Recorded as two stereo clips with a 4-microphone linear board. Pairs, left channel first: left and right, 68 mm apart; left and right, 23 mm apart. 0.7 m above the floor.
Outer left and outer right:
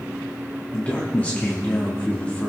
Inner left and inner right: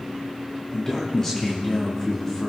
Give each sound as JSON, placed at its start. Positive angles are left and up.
{"t": 0.7, "sound": "a man speaking", "side_deg": 25, "distance_m": 1.4}